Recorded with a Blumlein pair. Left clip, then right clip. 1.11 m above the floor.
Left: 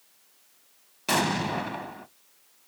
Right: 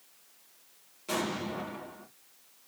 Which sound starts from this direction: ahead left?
An explosion, at 1.1 s.